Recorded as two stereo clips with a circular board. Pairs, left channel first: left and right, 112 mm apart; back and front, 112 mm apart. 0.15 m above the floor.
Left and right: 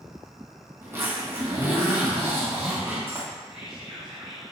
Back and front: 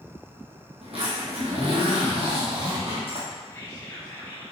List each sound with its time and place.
0.8 s a zipper: 25° right, 1.4 m
3.5 s whispering: 165° right, 1.4 m